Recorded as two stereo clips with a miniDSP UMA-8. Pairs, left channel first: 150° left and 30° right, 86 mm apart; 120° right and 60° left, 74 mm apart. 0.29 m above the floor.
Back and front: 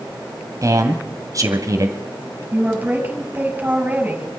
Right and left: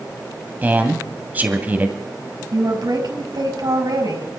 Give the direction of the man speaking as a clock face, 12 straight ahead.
12 o'clock.